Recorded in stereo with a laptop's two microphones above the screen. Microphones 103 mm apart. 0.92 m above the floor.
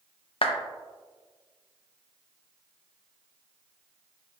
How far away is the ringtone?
No ringtone in this recording.